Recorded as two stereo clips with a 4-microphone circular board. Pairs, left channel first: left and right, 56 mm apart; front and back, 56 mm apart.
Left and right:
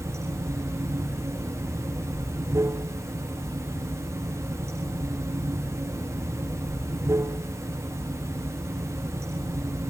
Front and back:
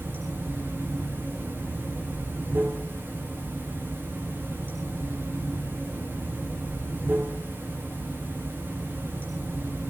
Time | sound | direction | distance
0.0 | running water | 125° right | 5 m